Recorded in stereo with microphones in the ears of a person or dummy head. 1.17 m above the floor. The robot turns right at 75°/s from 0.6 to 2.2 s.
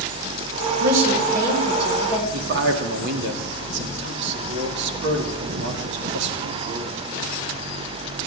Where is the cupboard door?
No cupboard door in this recording.